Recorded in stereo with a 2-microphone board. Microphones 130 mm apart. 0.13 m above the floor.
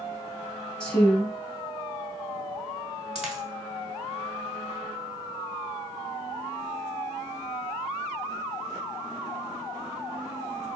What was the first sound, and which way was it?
A woman speaking, 10° left (ahead or behind).